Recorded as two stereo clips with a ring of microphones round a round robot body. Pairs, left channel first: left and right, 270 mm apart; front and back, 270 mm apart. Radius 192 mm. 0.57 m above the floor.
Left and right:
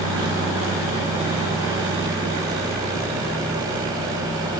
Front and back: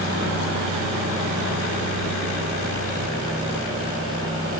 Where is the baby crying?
I don't hear a baby crying.